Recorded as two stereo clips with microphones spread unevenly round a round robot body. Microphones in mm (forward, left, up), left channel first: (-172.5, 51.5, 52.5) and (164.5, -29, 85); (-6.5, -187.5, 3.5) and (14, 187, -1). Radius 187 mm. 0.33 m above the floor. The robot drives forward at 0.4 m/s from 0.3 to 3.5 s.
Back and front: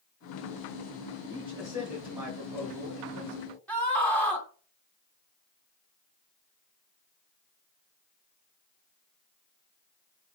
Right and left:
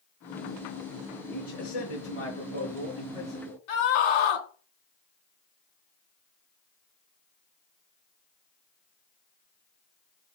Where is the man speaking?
100° right, 4.5 m; by 3.6 s 110° right, 4.5 m.